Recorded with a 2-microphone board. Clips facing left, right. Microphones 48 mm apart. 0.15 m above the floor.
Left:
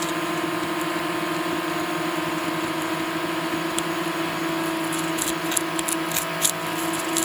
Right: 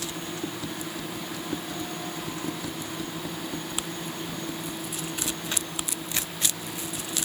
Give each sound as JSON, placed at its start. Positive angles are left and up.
{"t": 0.0, "sound": "a drone", "side_deg": 80}